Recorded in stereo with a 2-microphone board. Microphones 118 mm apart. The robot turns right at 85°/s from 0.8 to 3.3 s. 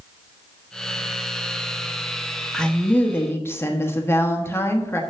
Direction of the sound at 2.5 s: 5° left (ahead or behind).